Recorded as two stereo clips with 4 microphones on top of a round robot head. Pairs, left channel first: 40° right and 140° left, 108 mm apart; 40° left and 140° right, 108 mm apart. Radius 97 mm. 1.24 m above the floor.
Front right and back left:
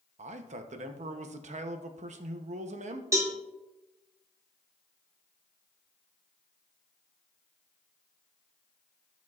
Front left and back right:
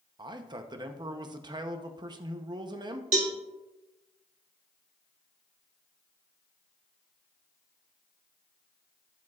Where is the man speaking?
165° left, 0.8 m.